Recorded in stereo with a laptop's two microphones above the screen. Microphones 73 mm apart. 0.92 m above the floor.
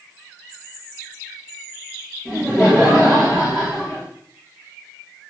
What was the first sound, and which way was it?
Laughter, 10° right (ahead or behind).